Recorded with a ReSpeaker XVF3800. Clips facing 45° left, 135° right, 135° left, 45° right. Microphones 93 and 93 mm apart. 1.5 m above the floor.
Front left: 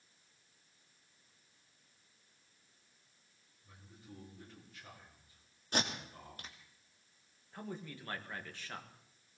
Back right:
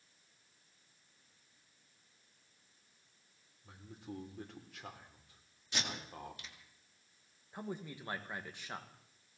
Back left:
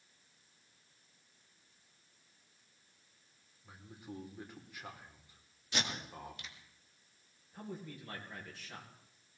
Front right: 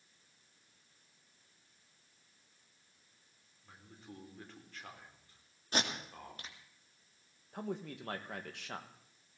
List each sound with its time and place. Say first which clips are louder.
3.6 s a man speaking: back right 8 dB, back left 4 dB; 145° right, 3.5 m
5.7 s tape being pulled: front left 4 dB, front right 2 dB; straight ahead, 2 m
7.5 s a man speaking: back right 2 dB, front right 5 dB; 60° right, 2.0 m